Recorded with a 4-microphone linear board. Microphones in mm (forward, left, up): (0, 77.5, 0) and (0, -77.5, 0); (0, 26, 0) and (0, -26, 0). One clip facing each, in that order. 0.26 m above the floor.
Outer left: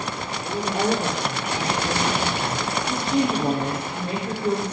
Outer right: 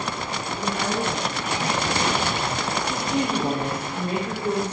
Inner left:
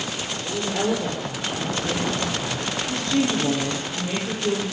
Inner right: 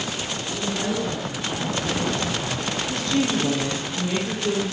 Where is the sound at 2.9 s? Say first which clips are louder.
Outer left 4 dB, inner left 1 dB; 25° left (ahead or behind), 8 m.